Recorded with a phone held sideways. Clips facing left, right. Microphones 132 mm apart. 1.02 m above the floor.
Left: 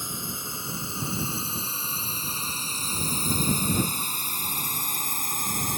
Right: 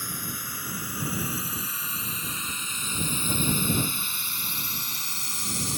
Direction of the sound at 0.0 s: 25° left (ahead or behind).